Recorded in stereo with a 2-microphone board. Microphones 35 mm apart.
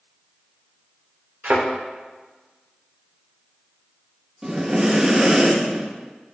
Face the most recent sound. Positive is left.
turn(degrees=-25)  # may be behind; listen again after turning